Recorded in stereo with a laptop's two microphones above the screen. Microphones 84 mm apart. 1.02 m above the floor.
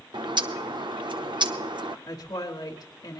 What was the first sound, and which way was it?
A bird, 70° right (ahead or behind).